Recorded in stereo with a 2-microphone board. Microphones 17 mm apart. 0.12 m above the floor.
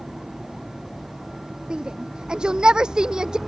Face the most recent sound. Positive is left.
turn(degrees=-50)  # may be behind; listen again after turning